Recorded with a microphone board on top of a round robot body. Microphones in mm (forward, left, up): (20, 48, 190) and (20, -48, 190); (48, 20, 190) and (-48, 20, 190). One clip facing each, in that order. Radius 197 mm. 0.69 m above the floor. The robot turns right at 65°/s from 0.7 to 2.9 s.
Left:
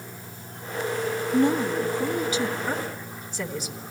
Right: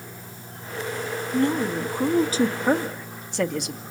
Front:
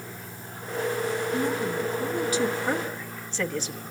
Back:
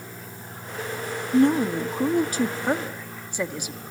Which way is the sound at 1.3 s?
155° left.